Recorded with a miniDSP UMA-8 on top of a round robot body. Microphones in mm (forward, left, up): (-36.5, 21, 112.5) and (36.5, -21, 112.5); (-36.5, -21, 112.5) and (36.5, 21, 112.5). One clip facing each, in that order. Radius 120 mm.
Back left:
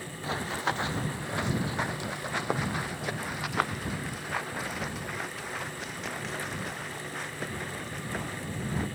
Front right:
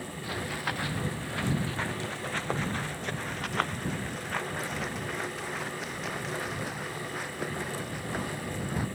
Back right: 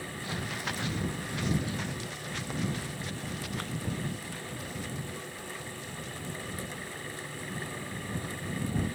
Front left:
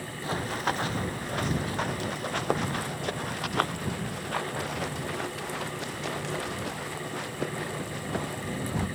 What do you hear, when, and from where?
0.2 s running footsteps: 85° left; by 8.8 s 55° left